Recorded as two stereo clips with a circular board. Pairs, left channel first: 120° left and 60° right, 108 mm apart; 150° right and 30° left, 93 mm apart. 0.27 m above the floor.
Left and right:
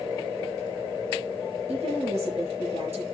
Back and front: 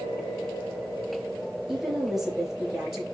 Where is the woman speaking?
55° right, 4.5 m.